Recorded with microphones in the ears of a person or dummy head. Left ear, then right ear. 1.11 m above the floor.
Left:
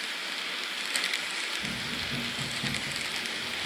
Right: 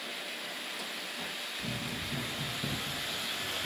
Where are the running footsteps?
40° left (ahead or behind), 1.6 m; by 3.7 s centre (ahead or behind), 1.1 m.